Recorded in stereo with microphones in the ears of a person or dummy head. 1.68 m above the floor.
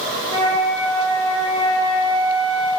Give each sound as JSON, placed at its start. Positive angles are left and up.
{"t": 0.3, "sound": "a flute", "side_deg": -60, "distance_m": 2.0}